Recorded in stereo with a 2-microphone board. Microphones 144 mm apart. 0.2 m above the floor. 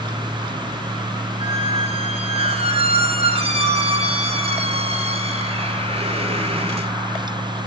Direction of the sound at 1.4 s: 45° right (ahead or behind).